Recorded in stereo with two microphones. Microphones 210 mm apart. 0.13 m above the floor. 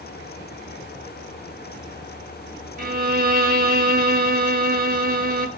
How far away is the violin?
About 0.7 m.